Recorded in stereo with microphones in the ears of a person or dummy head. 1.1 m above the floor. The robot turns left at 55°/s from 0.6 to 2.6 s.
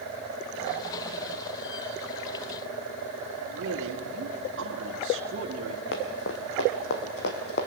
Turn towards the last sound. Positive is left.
turn(degrees=55)  # may be behind; listen again after turning